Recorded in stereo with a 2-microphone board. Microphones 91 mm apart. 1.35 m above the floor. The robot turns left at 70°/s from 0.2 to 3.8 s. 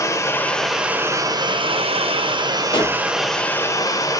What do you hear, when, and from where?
0.0 s running water: 35° left, 0.7 m; by 4.2 s 145° left, 0.7 m
2.7 s a pop: 55° left (ahead or behind), 2 m; by 3.0 s 70° left (ahead or behind), 2 m